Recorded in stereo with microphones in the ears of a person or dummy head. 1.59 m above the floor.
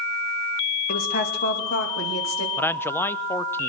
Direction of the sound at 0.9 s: 40° left (ahead or behind).